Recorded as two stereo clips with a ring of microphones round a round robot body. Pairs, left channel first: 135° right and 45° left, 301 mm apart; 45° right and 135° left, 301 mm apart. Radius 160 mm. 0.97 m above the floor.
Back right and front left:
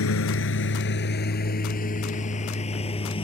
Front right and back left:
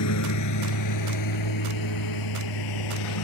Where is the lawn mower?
85° right; by 3.2 s 60° right.